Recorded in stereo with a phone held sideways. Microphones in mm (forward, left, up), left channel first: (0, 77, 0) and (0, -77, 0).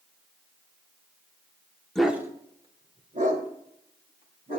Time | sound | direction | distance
1.9 | a dog barking | 5° left (ahead or behind) | 1.3 m